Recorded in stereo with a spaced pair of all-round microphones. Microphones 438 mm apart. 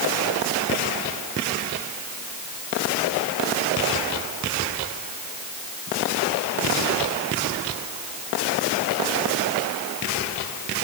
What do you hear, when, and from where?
Only background noise.